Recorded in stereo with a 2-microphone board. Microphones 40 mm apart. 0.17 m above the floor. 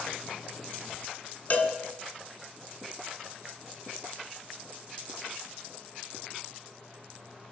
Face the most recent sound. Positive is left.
turn(degrees=45)  # may be behind; listen again after turning